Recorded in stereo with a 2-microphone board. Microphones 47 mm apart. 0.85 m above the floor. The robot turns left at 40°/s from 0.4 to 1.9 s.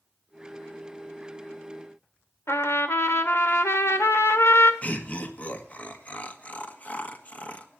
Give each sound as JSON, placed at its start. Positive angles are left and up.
{"t": 2.5, "sound": "a trumpet", "side_deg": 75, "distance_m": 1.4}
{"t": 4.8, "sound": "laughter", "side_deg": 30, "distance_m": 1.6}